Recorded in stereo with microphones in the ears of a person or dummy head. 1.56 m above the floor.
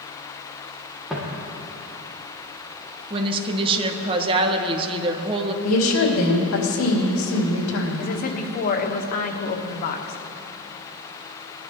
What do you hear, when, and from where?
1.1 s footsteps: centre (ahead or behind), 4 m
3.1 s a woman speaking: 25° right (ahead or behind), 1.5 m
5.6 s a woman speaking: 75° left (ahead or behind), 2.5 m
8.0 s a woman speaking: 45° left (ahead or behind), 1.3 m